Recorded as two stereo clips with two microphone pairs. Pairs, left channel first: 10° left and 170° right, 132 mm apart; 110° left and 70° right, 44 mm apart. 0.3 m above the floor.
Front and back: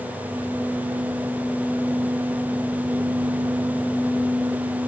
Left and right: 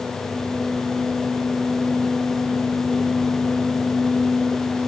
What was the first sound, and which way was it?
Only background noise.